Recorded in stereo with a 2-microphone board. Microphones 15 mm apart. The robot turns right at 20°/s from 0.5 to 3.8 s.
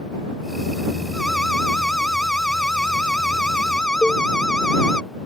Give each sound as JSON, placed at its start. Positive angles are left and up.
{"t": 1.1, "sound": "an alarm", "azimuth_deg": 45}
{"t": 4.0, "sound": "a cowbell", "side_deg": 70}